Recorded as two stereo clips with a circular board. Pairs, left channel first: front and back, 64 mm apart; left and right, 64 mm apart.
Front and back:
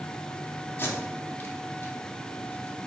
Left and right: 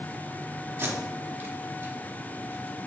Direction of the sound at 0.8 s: 45° right.